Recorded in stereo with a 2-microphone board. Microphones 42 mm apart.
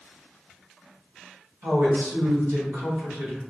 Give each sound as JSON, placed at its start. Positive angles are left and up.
{"t": 1.6, "sound": "a woman speaking", "side_deg": -65, "distance_m": 1.9}